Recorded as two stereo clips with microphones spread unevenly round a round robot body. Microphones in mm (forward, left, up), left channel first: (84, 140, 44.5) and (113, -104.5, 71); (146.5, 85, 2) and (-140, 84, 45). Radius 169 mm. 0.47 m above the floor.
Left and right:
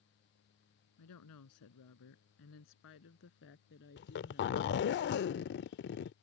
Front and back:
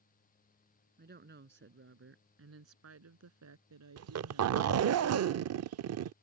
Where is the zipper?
140° left.